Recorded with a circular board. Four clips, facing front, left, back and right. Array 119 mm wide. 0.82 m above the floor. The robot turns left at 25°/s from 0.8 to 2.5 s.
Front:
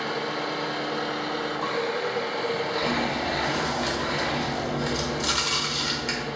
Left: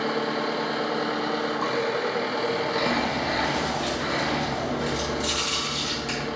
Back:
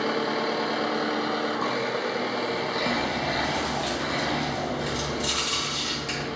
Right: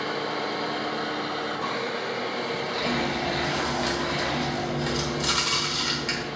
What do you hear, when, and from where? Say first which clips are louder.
0.0 s an engine running: left 3 dB, back 3 dB; 160° left, 1.3 m; by 6.3 s 115° left, 1.3 m
2.8 s chewing: left 2 dB, front 1 dB; 55° right, 0.9 m